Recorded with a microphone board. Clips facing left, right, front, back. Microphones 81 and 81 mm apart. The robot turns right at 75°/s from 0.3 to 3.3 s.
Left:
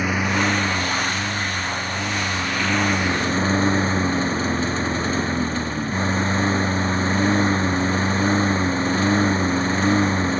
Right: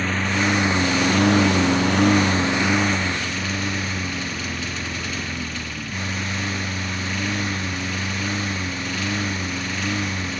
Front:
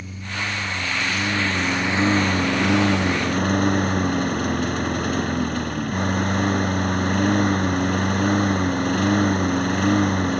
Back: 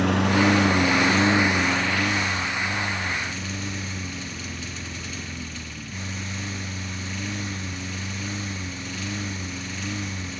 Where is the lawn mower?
170° left; by 10.4 s 35° left.